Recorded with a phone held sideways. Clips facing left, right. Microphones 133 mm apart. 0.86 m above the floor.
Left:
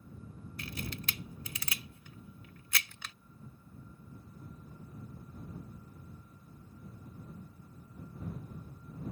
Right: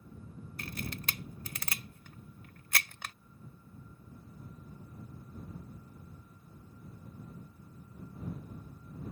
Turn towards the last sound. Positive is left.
turn(degrees=-55)  # may be behind; listen again after turning